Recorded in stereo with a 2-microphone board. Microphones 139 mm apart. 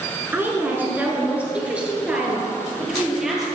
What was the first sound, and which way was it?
A woman speaking, 15° right (ahead or behind).